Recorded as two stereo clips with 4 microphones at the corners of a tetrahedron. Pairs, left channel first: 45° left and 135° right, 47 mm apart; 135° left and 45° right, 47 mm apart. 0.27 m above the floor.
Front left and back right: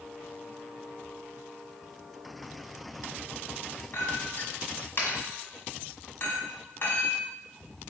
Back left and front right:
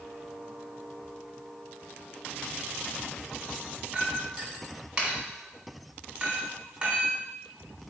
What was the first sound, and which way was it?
A clink, 15° left.